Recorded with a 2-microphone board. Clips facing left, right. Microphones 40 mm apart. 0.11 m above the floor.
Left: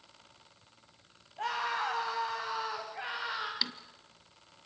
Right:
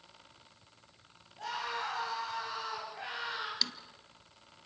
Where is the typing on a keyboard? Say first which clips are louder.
Right 2 dB; 20° left (ahead or behind), 0.9 m.